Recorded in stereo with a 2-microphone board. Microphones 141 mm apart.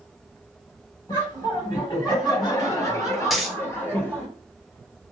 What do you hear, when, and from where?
1.1 s laughter: 30° left (ahead or behind), 1.6 m; by 4.3 s 15° left (ahead or behind), 1.5 m
3.3 s a dropped coin: centre (ahead or behind), 0.7 m